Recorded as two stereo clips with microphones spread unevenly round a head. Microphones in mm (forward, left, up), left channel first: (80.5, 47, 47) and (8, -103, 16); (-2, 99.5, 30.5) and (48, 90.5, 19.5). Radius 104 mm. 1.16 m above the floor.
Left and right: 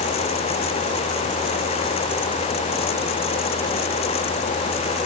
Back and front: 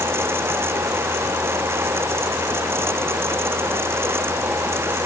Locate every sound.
Only background noise.